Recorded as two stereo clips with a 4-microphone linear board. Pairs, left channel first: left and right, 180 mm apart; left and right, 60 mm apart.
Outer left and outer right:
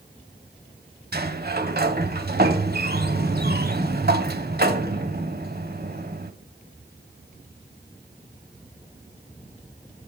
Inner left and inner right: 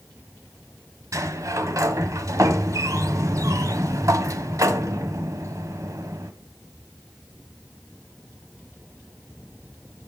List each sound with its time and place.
1.1 s a sliding door: 55° right (ahead or behind), 1.0 m